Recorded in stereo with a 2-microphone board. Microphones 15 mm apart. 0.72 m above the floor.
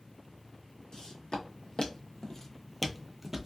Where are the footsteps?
65° left (ahead or behind), 1.5 m; by 3.5 s 30° right (ahead or behind), 0.8 m.